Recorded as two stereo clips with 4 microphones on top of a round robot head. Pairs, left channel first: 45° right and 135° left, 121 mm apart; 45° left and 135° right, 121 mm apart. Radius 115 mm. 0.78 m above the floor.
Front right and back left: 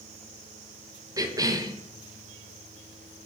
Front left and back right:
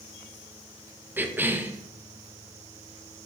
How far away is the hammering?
No hammering in this recording.